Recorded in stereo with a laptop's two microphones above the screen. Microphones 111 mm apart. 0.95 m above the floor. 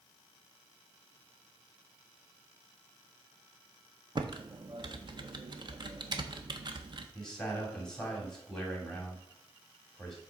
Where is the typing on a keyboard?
45° right (ahead or behind), 0.7 m.